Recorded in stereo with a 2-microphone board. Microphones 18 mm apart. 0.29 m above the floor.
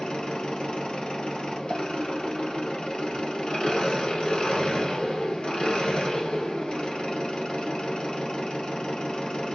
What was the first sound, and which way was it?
An engine running, 85° left.